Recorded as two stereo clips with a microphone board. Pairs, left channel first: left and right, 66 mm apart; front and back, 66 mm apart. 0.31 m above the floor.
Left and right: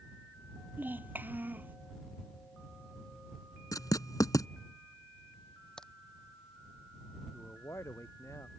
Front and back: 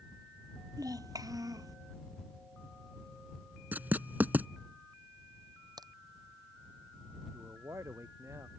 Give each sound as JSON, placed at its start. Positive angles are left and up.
{"t": 0.8, "sound": "a child speaking", "azimuth_deg": -150}
{"t": 3.7, "sound": "writing", "azimuth_deg": 120}
{"t": 5.8, "sound": "a crack", "azimuth_deg": 170}
{"t": 7.3, "sound": "a man speaking", "azimuth_deg": 135}